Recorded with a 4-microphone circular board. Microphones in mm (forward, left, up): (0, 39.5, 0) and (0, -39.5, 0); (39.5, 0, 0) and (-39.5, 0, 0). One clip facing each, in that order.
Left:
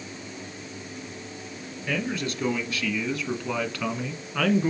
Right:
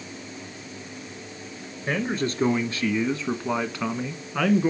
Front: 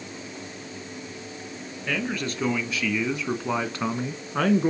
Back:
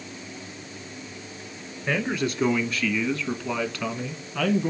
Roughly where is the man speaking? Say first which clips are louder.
Right 3 dB, back 3 dB; behind right.